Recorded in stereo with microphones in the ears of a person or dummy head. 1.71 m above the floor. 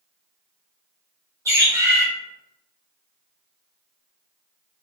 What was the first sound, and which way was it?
A bird, 20° right (ahead or behind).